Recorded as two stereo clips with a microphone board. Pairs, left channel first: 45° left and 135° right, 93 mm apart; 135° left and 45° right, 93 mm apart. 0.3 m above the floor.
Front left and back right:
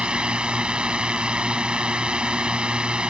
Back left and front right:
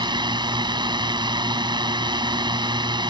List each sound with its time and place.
0.0 s a drone: 60° right